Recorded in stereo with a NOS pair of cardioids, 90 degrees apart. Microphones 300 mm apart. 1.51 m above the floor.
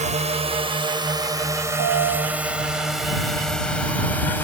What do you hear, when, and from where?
0.0 s a drone: 20° right; by 4.4 s 5° left
1.8 s a piano: 65° right